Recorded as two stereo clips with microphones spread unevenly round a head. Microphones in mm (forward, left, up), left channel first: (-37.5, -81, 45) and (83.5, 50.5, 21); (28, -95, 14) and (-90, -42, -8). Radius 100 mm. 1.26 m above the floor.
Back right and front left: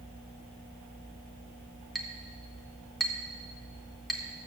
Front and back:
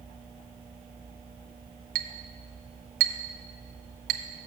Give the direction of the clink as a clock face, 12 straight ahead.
7 o'clock.